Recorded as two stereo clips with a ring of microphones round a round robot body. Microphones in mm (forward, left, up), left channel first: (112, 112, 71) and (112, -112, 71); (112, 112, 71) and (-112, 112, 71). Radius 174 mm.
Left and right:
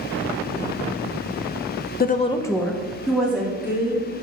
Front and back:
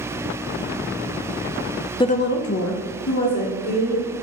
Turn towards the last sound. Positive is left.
turn(degrees=-10)